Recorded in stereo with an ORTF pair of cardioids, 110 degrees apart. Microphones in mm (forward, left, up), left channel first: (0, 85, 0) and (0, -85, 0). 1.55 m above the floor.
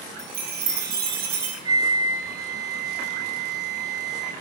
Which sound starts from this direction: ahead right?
A chime, at 0.2 s.